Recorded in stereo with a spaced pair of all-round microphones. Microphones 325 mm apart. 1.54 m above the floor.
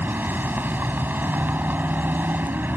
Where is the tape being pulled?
No tape being pulled in this recording.